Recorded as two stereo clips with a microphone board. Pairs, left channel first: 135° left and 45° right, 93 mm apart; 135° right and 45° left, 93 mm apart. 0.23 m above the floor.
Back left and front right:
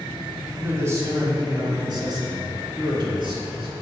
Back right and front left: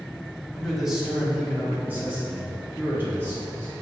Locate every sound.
0.5 s a man speaking: 55° right, 1.0 m; by 3.7 s 20° right, 3 m